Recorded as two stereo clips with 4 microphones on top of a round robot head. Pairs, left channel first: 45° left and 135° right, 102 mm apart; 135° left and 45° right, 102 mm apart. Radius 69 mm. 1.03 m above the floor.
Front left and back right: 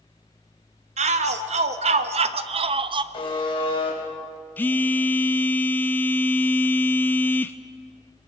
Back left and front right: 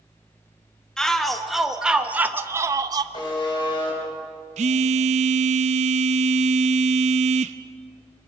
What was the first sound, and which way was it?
A shout, 140° right.